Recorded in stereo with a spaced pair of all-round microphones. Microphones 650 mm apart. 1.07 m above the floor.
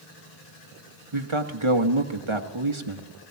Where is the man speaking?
45° right (ahead or behind), 1.4 m.